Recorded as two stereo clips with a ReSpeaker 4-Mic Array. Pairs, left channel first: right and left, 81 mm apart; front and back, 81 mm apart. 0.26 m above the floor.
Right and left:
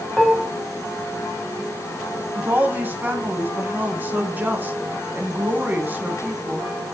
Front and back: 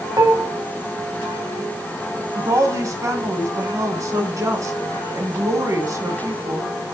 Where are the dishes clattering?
Straight behind, 1.2 m.